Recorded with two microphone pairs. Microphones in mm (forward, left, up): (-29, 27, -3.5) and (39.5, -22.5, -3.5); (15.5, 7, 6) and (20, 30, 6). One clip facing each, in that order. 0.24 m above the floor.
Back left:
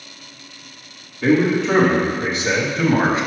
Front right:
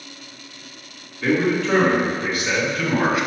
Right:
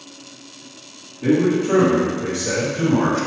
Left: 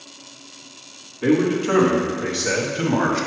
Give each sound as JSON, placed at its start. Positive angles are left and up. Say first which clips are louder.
{"t": 1.2, "sound": "a man speaking", "louder": "back left 3 dB, right 1 dB", "azimuth_deg": 70, "distance_m": 1.6}